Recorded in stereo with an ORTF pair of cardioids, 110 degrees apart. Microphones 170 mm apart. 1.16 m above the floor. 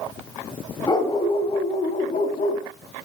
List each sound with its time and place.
0.9 s a dog barking: 30° left, 3 m; by 2.6 s 60° left, 3.5 m